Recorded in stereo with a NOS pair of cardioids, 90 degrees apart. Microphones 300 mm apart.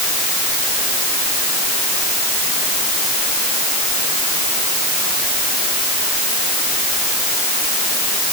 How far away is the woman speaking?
No woman speaking in this recording.